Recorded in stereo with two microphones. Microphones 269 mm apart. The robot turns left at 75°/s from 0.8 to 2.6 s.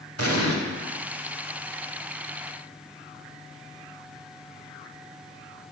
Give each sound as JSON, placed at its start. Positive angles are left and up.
{"t": 0.2, "sound": "an explosion", "side_deg": -60, "distance_m": 1.2}